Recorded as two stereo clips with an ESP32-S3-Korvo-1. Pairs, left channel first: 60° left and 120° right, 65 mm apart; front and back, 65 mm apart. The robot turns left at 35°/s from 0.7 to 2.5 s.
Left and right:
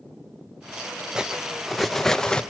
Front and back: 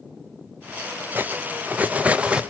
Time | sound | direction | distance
1.1 | cutlery clinking | 170° left | 0.7 m